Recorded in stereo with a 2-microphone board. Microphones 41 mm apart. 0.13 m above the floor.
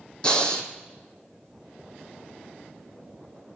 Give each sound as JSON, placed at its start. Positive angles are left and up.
{"t": 0.2, "sound": "breathing", "side_deg": 20, "distance_m": 0.9}